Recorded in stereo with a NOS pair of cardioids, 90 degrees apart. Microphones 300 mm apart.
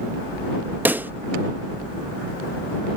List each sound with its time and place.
0.8 s a pop: 5° right